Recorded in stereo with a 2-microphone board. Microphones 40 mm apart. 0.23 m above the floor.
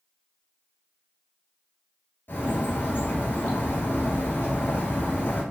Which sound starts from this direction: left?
A bird, at 2.3 s.